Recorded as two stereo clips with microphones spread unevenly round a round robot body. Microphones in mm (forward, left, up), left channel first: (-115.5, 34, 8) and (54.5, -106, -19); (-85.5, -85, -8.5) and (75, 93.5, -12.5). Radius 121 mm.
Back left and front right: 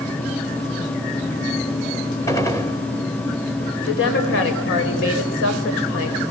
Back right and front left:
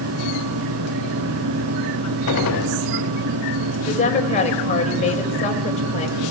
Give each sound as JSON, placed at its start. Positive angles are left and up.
{"t": 2.3, "sound": "a gunshot", "azimuth_deg": -145, "distance_m": 1.8}
{"t": 3.9, "sound": "a woman speaking", "azimuth_deg": 165, "distance_m": 4.0}